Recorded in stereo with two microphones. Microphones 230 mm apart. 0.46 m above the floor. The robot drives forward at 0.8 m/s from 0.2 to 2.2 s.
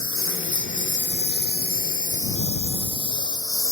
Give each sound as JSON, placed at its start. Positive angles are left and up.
{"t": 0.0, "sound": "a lawn mower", "side_deg": 65}